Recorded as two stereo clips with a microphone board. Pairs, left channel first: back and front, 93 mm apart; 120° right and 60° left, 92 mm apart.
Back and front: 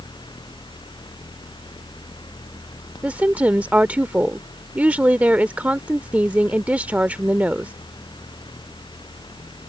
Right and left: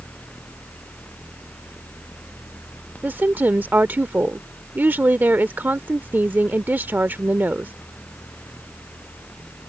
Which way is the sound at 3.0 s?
40° left.